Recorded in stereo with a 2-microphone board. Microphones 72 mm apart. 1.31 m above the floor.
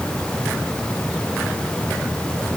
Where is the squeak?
I don't hear a squeak.